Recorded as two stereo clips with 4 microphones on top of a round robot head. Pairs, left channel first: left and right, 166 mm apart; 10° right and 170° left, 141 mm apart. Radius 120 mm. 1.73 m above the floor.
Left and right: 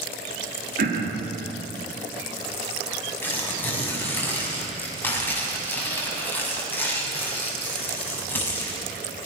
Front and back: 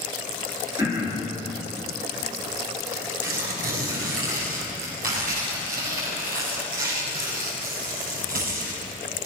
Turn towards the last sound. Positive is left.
turn(degrees=165)